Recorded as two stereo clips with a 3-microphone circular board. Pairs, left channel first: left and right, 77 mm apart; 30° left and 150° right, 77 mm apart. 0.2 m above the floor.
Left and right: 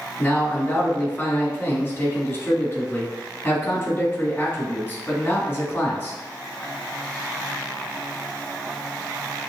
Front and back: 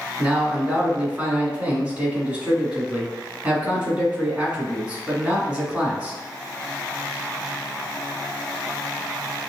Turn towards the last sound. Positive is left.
turn(degrees=145)